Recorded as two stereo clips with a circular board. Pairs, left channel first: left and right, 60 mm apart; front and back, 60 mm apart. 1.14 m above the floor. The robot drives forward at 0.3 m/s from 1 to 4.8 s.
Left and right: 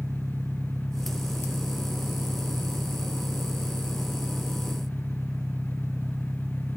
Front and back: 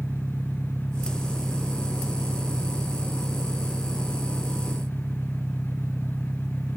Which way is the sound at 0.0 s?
130° right.